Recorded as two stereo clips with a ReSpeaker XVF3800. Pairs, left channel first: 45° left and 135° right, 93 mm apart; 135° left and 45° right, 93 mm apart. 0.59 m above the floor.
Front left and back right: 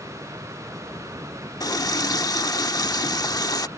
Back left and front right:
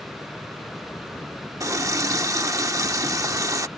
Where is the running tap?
5° left.